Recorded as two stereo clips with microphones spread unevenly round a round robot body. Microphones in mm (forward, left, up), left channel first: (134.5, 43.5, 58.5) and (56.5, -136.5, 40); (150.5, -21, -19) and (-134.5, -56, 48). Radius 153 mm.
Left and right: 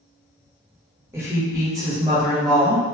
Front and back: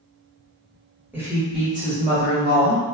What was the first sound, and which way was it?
A woman speaking, 65° right.